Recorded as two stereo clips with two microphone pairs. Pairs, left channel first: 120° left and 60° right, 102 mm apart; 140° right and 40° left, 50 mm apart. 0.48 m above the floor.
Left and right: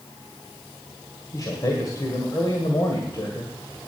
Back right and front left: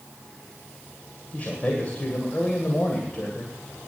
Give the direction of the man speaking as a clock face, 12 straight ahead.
7 o'clock.